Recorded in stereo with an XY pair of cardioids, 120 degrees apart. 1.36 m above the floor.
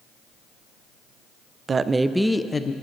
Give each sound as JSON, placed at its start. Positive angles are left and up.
{"t": 1.7, "sound": "a woman speaking", "azimuth_deg": -35, "distance_m": 0.6}